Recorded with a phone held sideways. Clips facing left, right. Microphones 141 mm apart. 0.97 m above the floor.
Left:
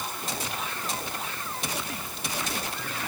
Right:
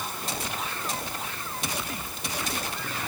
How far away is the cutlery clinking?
No cutlery clinking in this recording.